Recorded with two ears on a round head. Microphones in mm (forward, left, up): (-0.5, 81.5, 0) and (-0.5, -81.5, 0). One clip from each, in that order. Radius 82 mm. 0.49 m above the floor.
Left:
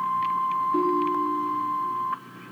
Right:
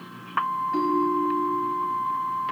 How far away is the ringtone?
About 1.4 m.